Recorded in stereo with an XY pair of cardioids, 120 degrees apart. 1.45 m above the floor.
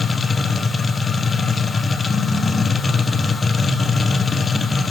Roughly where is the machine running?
Ahead.